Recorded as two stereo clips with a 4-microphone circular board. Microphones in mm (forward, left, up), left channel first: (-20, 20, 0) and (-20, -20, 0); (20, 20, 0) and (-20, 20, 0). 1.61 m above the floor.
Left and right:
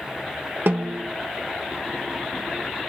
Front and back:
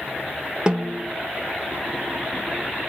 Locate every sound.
0.7 s a snare drum: 110° right, 1.1 m